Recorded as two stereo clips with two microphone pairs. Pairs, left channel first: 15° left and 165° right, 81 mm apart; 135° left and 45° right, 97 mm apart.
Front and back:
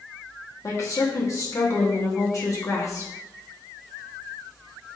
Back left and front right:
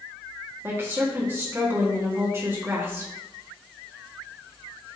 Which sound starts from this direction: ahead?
A woman speaking, at 0.6 s.